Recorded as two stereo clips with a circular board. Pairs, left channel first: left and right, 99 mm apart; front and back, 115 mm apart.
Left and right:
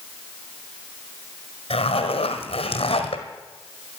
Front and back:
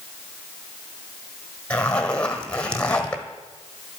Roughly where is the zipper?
Left.